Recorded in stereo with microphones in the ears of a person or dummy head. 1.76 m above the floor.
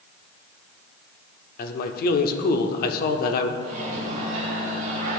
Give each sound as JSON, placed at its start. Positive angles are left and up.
{"t": 1.6, "sound": "a man speaking", "side_deg": 55, "distance_m": 0.6}
{"t": 3.6, "sound": "a microwave", "side_deg": -45, "distance_m": 1.9}